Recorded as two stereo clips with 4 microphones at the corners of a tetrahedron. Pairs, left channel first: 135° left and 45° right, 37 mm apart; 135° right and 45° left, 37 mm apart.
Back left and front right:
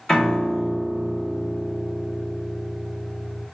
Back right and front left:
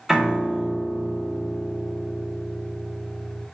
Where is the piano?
115° left, 1.1 m.